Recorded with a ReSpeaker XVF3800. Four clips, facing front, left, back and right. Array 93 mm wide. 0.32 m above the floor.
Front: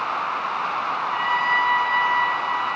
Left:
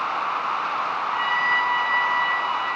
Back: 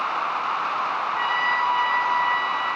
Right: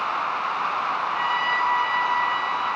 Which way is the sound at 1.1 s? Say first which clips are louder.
Left 4 dB, front 3 dB; 30° left.